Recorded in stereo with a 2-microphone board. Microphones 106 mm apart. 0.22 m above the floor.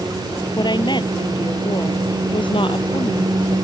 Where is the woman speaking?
45° left (ahead or behind); by 3.6 s 55° left (ahead or behind).